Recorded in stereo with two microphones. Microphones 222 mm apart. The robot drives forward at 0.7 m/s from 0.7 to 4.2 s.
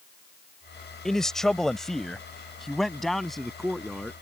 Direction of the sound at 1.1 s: Centre (ahead or behind).